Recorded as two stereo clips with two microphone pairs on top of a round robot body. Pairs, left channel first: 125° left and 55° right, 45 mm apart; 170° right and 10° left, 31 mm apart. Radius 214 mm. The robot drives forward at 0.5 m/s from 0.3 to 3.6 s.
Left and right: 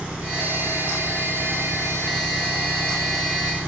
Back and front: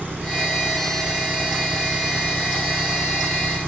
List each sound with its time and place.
0.0 s an engine running: 10° left; by 3.7 s 15° left